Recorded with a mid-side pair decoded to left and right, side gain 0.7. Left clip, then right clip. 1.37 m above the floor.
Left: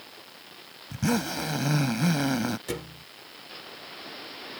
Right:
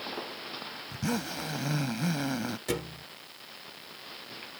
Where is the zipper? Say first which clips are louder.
Left 6 dB; 25° left.